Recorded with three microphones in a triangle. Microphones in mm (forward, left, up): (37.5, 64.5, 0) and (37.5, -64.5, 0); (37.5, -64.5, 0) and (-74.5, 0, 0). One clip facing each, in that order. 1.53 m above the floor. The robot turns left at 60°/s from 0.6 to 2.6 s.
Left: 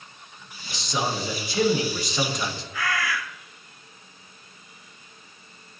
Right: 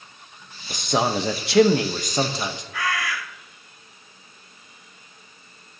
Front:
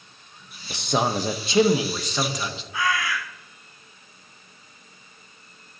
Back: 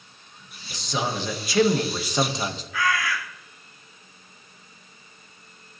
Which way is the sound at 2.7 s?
95° right.